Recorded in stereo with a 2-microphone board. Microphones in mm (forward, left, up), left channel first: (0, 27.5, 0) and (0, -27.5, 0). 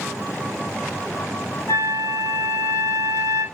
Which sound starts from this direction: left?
A flute, at 1.7 s.